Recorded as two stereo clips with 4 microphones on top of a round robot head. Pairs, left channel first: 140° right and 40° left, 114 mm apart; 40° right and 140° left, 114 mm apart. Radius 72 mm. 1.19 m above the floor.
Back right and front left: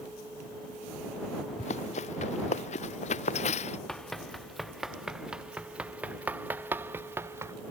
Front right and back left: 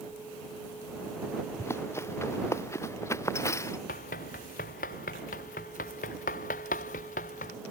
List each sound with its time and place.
1.6 s running footsteps: 110° right
3.9 s running footsteps: 50° right; by 7.5 s 25° right